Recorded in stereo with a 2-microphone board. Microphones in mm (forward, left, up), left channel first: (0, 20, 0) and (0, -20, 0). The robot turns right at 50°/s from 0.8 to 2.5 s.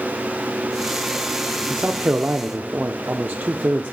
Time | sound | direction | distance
1.7 | a man speaking | 115° right | 0.6 m